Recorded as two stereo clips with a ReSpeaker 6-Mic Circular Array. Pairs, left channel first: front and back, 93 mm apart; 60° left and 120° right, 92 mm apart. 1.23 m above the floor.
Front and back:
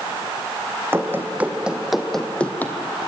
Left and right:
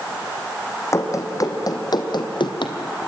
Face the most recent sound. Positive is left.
turn(degrees=60)